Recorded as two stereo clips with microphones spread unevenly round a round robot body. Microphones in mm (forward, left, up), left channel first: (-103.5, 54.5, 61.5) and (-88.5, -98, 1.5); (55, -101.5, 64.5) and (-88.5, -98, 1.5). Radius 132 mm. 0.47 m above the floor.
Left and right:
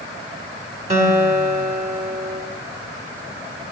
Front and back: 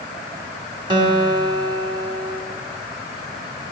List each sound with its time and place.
0.9 s a guitar: 125° right, 4 m